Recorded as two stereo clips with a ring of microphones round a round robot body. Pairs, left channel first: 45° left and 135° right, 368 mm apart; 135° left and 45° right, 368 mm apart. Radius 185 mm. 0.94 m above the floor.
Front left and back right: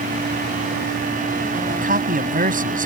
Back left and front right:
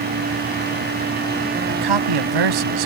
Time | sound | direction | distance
1.7 | a man speaking | 65° right | ?